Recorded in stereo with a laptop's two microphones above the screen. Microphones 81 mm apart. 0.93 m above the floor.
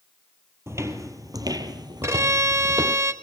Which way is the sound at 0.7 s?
35° right (ahead or behind).